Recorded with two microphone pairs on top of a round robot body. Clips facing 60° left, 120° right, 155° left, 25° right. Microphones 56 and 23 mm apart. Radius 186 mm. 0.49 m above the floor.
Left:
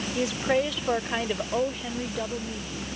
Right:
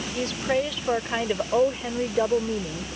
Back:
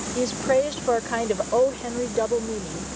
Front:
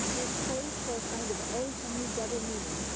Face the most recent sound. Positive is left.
turn(degrees=-160)